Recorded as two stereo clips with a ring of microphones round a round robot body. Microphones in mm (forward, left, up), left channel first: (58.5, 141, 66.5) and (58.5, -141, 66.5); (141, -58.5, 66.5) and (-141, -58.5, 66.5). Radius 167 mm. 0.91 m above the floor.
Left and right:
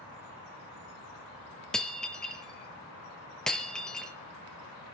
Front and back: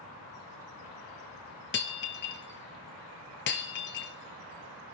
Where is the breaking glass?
5° left, 1.0 m.